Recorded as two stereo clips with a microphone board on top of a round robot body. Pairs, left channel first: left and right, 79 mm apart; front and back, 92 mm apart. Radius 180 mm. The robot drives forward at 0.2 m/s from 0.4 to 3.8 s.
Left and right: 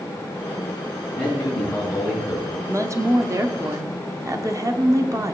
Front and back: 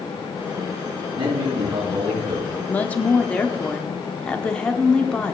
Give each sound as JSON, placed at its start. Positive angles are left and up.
{"t": 1.1, "sound": "a man speaking", "azimuth_deg": 180, "distance_m": 3.5}
{"t": 2.7, "sound": "a woman speaking", "azimuth_deg": -65, "distance_m": 1.4}